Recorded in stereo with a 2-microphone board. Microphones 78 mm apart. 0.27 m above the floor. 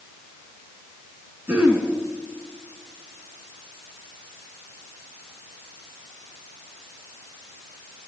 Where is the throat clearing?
20° right (ahead or behind), 3 m.